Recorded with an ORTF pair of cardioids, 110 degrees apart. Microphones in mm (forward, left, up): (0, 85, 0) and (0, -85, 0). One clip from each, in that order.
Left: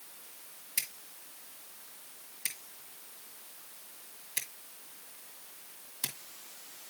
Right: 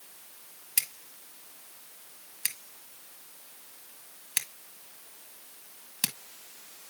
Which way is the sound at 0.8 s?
65° right.